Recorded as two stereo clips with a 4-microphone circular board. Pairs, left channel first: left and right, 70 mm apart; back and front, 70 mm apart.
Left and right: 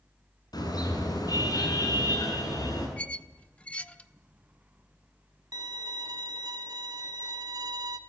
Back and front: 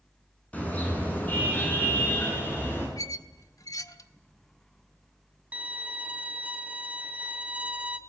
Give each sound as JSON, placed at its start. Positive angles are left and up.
{"t": 0.5, "sound": "a car horn", "azimuth_deg": 110, "distance_m": 7.5}
{"t": 3.0, "sound": "a squeak", "azimuth_deg": 160, "distance_m": 1.0}
{"t": 5.5, "sound": "a violin", "azimuth_deg": -70, "distance_m": 1.3}